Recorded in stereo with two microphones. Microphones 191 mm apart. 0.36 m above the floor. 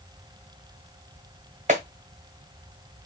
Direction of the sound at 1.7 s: 40° right (ahead or behind).